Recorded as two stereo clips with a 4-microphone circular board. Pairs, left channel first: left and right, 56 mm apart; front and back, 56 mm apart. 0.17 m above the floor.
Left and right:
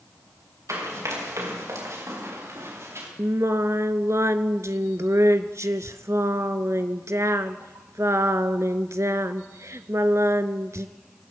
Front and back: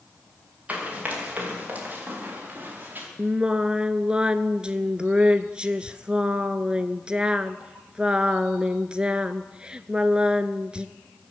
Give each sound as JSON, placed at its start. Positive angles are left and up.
{"t": 0.7, "sound": "running footsteps", "azimuth_deg": -115, "distance_m": 7.0}
{"t": 3.2, "sound": "singing", "azimuth_deg": -110, "distance_m": 0.7}